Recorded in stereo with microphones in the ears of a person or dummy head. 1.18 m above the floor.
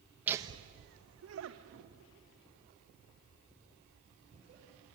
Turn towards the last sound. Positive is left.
turn(degrees=-40)  # may be behind; listen again after turning